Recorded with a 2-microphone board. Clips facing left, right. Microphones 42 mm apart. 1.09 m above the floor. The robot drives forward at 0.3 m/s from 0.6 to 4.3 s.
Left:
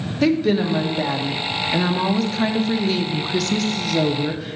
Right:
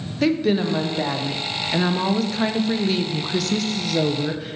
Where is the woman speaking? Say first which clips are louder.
Left 2 dB; centre (ahead or behind), 1.0 m.